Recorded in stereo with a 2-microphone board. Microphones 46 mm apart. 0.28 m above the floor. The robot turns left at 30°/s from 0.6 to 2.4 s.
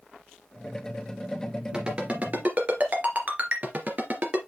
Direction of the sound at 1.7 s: 20° right (ahead or behind).